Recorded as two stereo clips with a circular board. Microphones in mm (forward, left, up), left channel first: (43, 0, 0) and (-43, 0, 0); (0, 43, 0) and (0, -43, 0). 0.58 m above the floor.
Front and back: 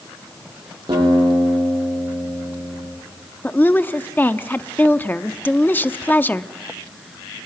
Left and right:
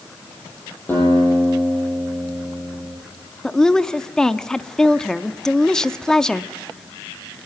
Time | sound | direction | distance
0.9 | a guitar | 155° left | 8.5 m
3.4 | a woman speaking | 20° left | 0.6 m